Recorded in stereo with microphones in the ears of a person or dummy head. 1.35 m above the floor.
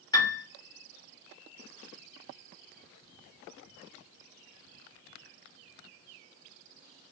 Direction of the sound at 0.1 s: 15° left (ahead or behind).